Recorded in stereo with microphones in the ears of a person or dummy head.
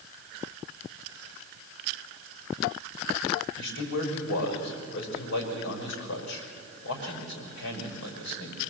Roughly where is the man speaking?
Left.